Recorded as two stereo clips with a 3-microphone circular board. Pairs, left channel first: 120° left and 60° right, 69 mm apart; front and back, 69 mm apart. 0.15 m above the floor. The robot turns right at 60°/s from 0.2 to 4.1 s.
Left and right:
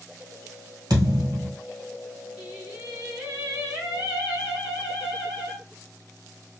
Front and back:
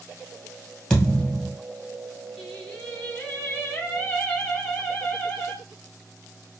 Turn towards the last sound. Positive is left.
turn(degrees=20)